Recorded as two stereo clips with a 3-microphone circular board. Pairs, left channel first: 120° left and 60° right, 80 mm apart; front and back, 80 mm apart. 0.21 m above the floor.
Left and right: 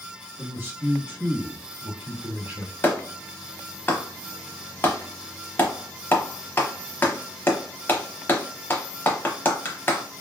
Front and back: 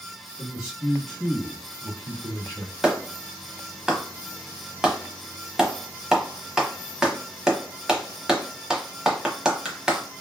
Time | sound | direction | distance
0.4 | a man speaking | 100° right | 1.8 m
2.8 | a clap | 110° left | 0.9 m